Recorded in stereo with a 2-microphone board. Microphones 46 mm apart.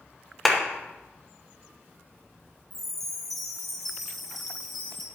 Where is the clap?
5° left (ahead or behind), 1.3 m.